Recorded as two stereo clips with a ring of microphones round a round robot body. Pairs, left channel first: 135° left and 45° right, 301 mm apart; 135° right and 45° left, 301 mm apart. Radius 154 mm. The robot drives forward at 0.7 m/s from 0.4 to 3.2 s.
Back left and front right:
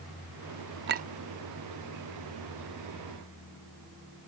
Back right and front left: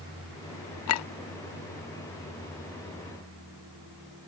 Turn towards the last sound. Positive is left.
turn(degrees=-165)